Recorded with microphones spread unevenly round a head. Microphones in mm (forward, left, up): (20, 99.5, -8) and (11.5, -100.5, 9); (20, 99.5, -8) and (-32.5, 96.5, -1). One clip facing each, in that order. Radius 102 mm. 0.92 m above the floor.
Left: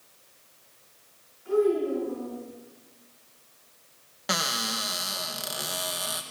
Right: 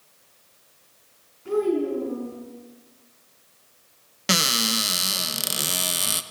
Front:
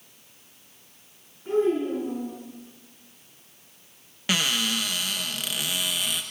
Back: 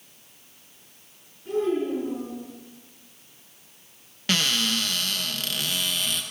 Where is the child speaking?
55° right, 6.5 m.